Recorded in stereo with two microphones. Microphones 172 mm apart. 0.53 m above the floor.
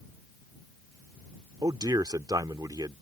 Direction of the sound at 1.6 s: 20° right (ahead or behind).